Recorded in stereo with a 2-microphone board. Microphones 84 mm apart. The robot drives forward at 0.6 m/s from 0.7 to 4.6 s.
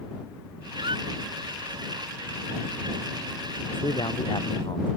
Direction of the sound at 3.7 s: 75° left (ahead or behind).